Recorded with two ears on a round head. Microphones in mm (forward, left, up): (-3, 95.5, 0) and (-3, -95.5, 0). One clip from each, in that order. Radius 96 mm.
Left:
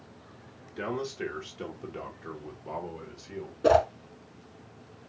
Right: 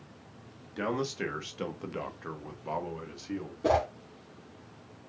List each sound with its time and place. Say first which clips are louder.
0.8 s a man speaking: right 1 dB; 25° right (ahead or behind), 1.2 m; by 3.5 s 20° right (ahead or behind), 1.4 m
3.6 s a whoosh: left 5 dB; 25° left (ahead or behind), 1.1 m